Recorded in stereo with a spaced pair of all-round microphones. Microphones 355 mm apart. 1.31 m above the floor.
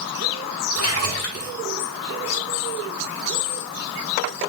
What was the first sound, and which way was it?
A splash, 45° left (ahead or behind).